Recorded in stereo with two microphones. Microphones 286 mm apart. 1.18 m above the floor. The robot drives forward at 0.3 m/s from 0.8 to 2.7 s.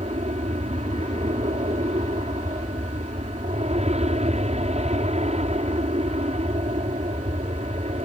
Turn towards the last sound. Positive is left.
turn(degrees=-25)  # may be behind; listen again after turning